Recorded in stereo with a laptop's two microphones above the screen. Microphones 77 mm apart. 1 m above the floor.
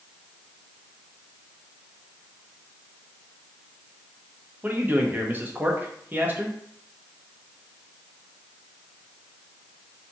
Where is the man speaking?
25° right (ahead or behind), 0.8 m.